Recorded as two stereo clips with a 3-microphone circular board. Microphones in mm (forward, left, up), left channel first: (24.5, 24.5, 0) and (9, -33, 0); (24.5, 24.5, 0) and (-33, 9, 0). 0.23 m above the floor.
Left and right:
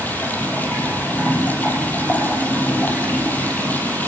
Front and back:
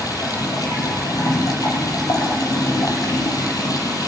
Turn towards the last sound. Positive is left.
turn(degrees=15)